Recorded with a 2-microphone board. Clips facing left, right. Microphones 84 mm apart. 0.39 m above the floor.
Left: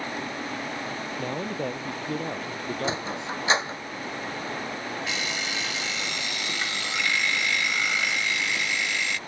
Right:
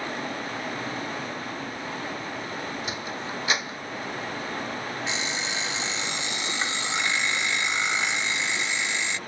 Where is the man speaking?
70° left (ahead or behind).